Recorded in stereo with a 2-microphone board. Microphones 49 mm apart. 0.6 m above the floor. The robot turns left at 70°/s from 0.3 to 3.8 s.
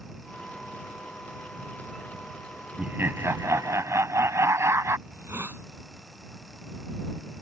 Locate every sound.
2.8 s laughter: 30° right; by 5.0 s 105° right
5.1 s a hiss: 55° right (ahead or behind)